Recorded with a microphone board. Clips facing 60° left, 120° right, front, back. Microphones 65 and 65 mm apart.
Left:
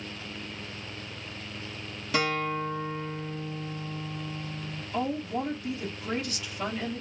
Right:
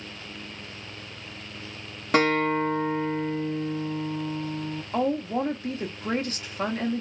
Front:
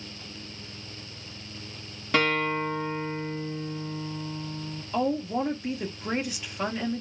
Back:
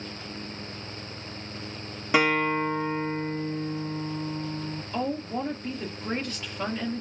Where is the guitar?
110° right, 1.2 m.